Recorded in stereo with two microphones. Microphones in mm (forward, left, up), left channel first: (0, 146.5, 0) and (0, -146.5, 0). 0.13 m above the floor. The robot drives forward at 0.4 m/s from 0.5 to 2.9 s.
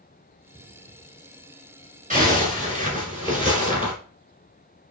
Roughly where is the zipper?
Right.